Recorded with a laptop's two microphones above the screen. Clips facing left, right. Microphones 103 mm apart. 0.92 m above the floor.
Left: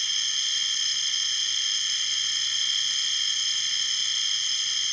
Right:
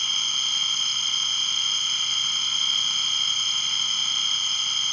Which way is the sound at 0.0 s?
55° right (ahead or behind).